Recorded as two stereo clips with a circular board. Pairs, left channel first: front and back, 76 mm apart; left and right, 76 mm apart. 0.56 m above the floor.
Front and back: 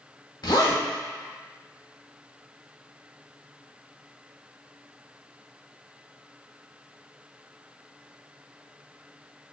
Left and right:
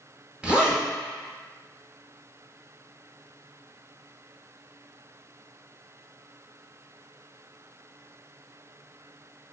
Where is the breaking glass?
I don't hear breaking glass.